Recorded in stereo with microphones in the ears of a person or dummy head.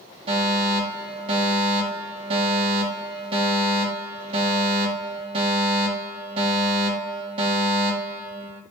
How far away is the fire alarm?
About 6.5 m.